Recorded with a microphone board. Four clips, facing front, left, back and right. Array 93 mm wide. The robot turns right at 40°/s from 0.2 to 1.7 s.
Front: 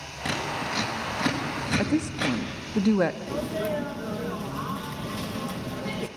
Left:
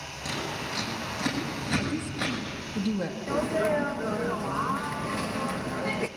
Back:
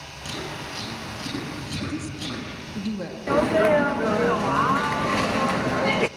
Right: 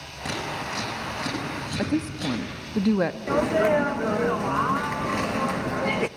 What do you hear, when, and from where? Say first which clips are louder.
0.2 s scissors: right 3 dB, front 4 dB; 30° right, 6.5 m; by 2.4 s 30° left, 6.5 m
1.8 s a woman speaking: right 5 dB, front 7 dB; 40° right, 0.9 m
3.3 s a sneeze: right 4 dB, back 10 dB; 160° right, 0.5 m